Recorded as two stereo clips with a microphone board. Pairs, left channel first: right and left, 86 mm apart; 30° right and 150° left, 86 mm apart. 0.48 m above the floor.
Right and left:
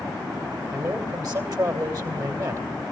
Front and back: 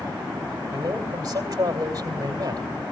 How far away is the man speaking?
About 2 m.